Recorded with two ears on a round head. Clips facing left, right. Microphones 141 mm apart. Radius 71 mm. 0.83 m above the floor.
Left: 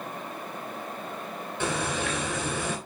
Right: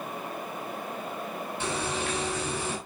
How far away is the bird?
About 3 m.